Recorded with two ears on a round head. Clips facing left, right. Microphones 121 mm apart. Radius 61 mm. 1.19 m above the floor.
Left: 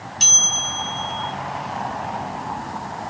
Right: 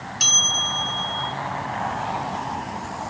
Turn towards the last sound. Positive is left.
turn(degrees=0)  # may be behind; listen again after turning